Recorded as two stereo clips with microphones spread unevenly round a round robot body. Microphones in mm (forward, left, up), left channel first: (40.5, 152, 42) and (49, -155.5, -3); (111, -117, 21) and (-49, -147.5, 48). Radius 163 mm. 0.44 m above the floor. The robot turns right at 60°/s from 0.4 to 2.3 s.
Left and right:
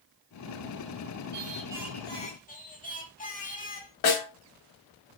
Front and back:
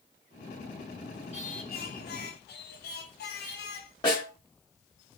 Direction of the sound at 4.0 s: 80° left.